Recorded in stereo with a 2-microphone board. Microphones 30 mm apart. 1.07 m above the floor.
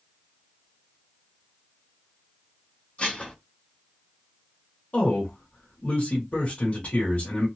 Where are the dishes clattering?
45° left (ahead or behind), 1.1 m.